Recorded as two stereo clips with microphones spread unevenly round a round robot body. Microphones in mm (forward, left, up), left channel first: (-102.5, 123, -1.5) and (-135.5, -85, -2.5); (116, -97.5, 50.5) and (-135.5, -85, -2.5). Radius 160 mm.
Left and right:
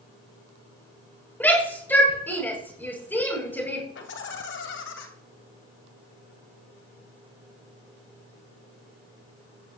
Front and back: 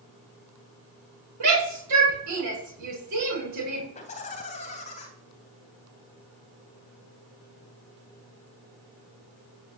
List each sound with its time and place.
1.4 s a shout: 160° left, 7 m
4.0 s laughter: 70° left, 2.5 m